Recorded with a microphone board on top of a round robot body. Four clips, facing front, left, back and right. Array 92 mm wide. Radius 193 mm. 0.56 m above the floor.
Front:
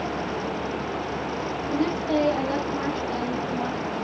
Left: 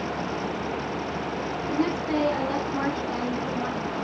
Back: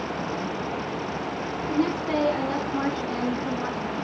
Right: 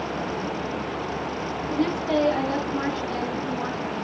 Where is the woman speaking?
135° left, 7.5 m; by 4.0 s 160° left, 6.5 m.